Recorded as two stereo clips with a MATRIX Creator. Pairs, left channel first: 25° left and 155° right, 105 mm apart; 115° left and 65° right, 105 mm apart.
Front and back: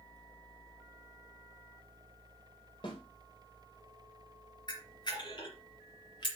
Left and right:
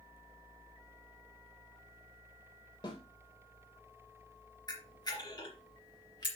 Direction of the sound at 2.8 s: 65° left.